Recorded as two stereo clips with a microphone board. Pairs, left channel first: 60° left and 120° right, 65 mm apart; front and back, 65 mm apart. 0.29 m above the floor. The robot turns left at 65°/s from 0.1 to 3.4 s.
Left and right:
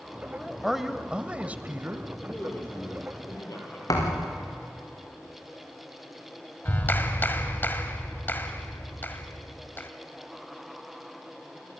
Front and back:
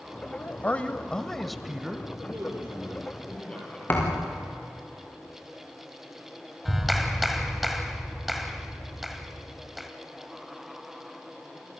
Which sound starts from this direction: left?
A clap, at 6.7 s.